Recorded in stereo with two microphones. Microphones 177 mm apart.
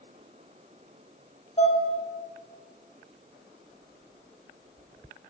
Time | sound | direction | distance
1.6 | dishes clattering | 35° left (ahead or behind) | 1.6 m